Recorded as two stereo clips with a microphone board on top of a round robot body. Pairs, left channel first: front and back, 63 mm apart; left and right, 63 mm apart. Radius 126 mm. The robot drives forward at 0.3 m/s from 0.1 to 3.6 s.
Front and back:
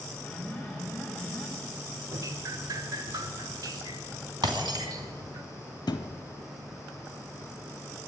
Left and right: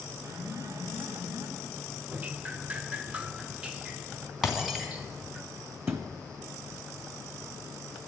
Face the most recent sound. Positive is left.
turn(degrees=-30)